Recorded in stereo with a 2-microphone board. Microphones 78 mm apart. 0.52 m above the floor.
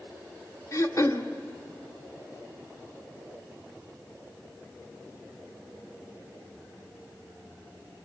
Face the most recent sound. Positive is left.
turn(degrees=40)  # may be behind; listen again after turning